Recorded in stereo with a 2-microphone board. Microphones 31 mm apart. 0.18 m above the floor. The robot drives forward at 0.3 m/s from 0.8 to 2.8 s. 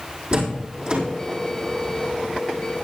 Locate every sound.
0.3 s a door slam: 35° right (ahead or behind), 6 m